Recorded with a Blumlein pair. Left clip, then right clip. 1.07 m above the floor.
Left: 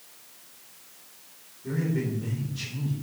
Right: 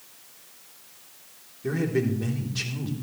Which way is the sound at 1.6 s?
30° right.